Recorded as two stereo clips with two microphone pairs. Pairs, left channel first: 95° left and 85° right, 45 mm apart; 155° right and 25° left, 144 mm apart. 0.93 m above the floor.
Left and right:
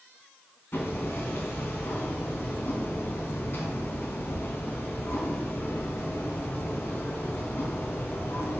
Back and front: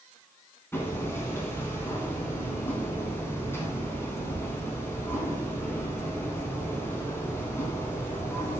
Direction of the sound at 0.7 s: 130° left.